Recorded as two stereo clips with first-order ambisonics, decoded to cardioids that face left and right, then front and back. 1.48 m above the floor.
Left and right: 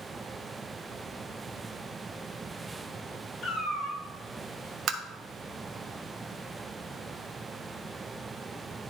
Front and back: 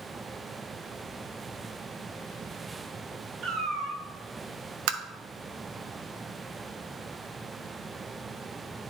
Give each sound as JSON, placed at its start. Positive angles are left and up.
{"t": 3.4, "sound": "a cat meowing", "azimuth_deg": 140, "distance_m": 1.9}
{"t": 4.9, "sound": "tapping", "azimuth_deg": -155, "distance_m": 0.7}